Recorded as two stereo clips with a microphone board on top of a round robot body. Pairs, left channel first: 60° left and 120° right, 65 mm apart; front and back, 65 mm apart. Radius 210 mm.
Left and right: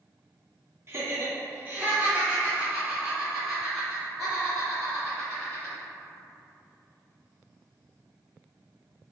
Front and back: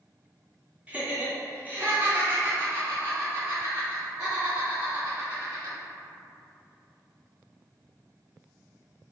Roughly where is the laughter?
Behind right.